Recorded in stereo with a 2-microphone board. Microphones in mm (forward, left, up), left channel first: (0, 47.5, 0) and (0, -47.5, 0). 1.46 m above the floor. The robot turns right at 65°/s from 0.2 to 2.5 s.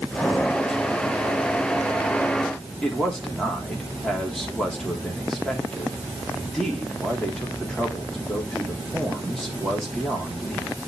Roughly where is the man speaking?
Centre.